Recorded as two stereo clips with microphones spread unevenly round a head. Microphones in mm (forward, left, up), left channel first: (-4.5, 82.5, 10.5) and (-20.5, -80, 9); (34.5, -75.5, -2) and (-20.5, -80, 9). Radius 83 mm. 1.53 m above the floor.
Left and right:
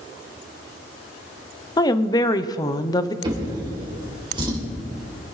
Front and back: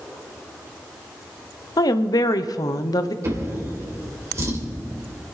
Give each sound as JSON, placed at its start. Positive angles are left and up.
{"t": 1.8, "sound": "a woman speaking", "azimuth_deg": 15, "distance_m": 0.6}
{"t": 3.2, "sound": "a drawer", "azimuth_deg": -160, "distance_m": 3.0}